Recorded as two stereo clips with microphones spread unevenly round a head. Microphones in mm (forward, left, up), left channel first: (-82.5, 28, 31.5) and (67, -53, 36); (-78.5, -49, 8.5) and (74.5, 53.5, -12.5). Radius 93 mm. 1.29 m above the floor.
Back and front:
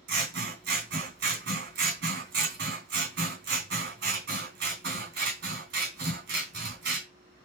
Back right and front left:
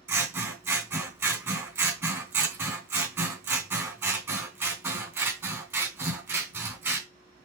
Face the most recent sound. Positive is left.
turn(degrees=-45)